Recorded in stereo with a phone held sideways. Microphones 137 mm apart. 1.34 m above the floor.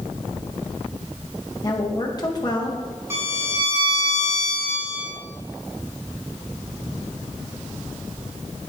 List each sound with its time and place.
1.6 s a woman speaking: 30° left (ahead or behind), 1.0 m
3.1 s a violin: 20° right (ahead or behind), 1.6 m